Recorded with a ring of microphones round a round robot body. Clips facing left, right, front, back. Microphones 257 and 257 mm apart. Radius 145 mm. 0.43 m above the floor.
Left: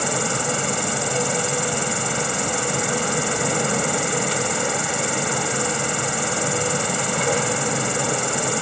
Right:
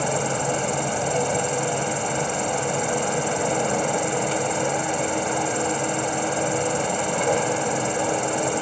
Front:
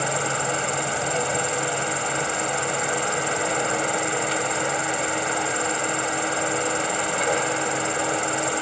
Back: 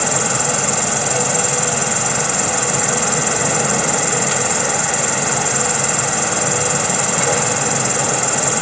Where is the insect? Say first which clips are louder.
Even, back 5 dB; 155° left.